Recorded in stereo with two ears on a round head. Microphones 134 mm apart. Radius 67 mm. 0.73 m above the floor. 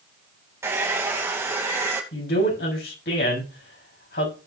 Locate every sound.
0.6 s a hair dryer: 20° right (ahead or behind), 2.5 m
2.1 s a man speaking: 80° left, 6.5 m